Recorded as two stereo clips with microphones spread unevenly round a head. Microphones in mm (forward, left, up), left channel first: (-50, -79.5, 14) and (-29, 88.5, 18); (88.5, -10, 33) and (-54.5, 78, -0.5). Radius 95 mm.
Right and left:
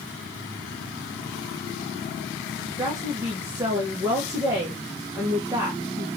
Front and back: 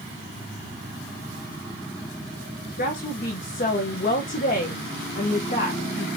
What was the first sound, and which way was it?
A woman speaking, 10° left.